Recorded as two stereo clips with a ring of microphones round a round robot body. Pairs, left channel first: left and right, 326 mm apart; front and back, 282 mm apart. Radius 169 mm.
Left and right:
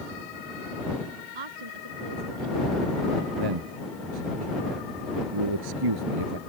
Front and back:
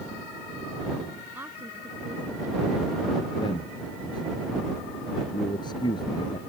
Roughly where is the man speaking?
Right.